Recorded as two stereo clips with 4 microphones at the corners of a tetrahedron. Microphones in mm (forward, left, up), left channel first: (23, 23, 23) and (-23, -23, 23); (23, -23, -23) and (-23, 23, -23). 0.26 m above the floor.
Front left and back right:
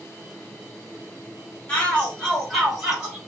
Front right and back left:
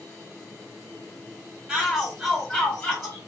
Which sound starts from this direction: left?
A shout, at 1.7 s.